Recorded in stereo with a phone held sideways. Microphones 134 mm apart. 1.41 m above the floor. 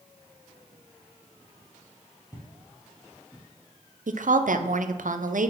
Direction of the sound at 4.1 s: 75° right (ahead or behind).